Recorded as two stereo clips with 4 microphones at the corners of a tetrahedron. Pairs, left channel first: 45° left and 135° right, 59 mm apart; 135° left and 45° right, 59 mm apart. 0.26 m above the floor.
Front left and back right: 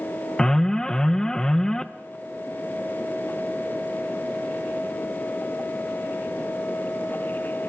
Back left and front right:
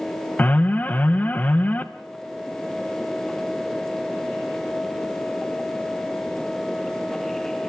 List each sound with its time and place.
0.4 s an alarm: 115° left, 0.8 m